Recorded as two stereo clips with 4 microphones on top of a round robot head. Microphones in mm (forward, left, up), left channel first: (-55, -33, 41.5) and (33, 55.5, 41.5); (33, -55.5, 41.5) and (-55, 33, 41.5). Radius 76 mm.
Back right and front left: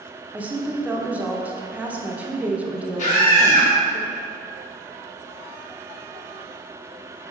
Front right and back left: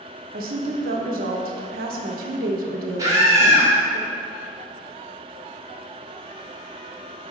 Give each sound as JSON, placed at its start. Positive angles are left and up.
{"t": 0.3, "sound": "a woman speaking", "azimuth_deg": 125, "distance_m": 0.9}
{"t": 3.0, "sound": "a scream", "azimuth_deg": -165, "distance_m": 1.8}